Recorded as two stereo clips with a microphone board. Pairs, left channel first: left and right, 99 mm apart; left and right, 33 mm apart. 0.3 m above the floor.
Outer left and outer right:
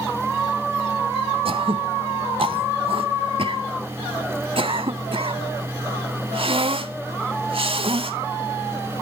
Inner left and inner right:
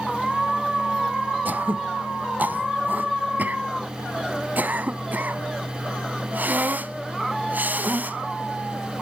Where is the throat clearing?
65° right (ahead or behind), 0.7 m.